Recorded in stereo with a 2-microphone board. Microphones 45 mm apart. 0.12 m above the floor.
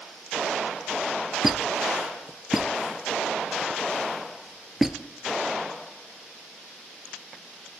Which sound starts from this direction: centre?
A squeak, at 1.4 s.